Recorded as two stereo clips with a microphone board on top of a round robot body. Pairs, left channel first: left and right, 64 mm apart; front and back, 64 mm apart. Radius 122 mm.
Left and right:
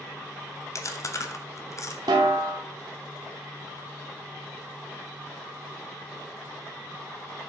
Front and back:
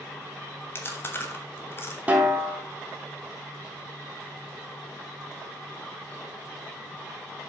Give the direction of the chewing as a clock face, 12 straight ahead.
10 o'clock.